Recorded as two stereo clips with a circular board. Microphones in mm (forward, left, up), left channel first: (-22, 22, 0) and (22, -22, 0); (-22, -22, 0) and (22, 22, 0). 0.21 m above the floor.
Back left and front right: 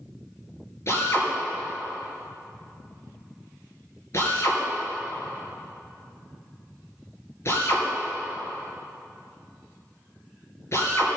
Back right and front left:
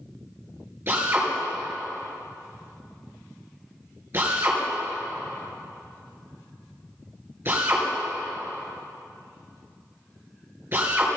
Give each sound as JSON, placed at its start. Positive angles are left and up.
{"t": 0.9, "sound": "a drill", "azimuth_deg": 95, "distance_m": 3.5}